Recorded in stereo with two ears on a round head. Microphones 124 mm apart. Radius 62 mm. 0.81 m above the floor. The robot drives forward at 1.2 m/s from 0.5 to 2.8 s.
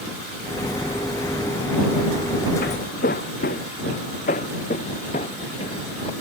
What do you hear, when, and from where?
2.6 s footsteps: 75° left (ahead or behind); by 6.1 s 40° left (ahead or behind)